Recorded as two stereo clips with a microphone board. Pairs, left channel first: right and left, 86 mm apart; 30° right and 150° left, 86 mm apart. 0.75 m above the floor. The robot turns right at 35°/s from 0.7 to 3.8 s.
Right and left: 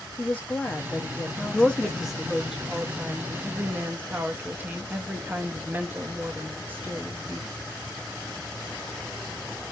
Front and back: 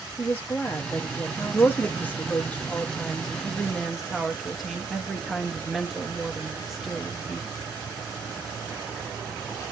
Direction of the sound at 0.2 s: 50° right.